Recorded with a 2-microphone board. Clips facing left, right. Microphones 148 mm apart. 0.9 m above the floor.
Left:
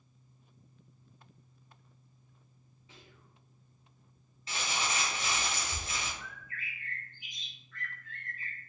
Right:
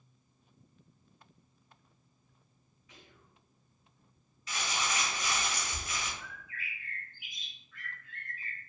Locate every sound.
2.9 s whispering: 30° left (ahead or behind), 0.8 m
4.5 s crumpling: 30° left (ahead or behind), 1.0 m
6.2 s a bird: 5° right (ahead or behind), 0.9 m